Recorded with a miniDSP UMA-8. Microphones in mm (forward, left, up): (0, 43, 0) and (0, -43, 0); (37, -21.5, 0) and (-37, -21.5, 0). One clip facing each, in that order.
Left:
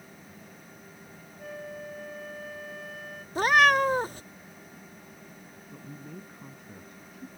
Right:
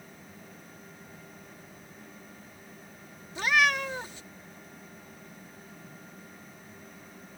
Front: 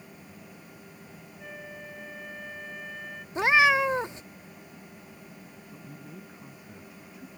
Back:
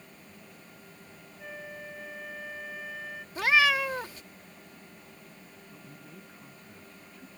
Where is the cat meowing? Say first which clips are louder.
Left 5 dB, front 3 dB; 60° left.